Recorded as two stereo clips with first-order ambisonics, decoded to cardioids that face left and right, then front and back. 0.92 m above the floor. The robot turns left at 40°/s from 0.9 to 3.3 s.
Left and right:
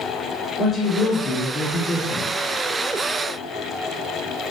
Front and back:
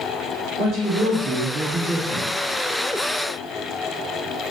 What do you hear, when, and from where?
0.6 s a woman speaking: 155° left, 1.7 m; by 2.5 s 95° left, 1.7 m